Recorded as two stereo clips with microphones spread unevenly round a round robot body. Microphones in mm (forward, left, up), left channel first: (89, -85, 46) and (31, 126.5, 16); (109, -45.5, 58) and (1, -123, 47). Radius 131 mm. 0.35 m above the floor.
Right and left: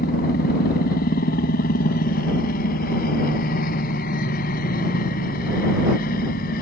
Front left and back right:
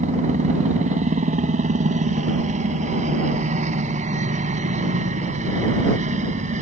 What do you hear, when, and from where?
0.0 s a helicopter: 130° right